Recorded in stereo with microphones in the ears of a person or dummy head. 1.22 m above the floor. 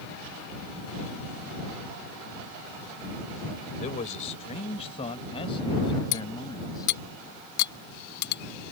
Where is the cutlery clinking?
65° left (ahead or behind).